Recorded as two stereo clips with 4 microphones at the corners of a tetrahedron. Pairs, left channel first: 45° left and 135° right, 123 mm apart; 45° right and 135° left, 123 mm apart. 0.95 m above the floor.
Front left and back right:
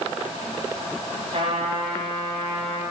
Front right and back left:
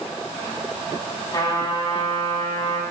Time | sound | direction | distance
1.3 | a trumpet | 105° right | 5.5 m